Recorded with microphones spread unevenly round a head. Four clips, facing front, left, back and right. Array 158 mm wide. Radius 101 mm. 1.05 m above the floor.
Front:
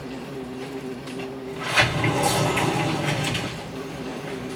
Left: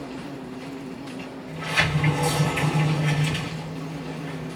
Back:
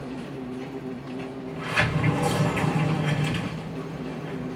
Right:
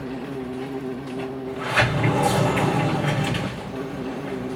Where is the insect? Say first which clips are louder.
Right 4 dB, front 1 dB; 75° right, 1.2 m.